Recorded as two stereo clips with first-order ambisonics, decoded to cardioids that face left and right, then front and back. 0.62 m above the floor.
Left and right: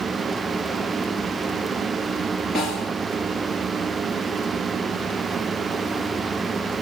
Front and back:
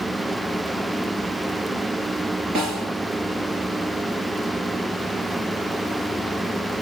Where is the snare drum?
140° left, 4 m.